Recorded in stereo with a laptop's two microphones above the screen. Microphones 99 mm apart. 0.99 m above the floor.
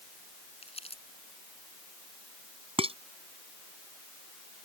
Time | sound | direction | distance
0.6 | crumpling | 85° left | ?
2.8 | dishes clattering | 75° right (ahead or behind) | ?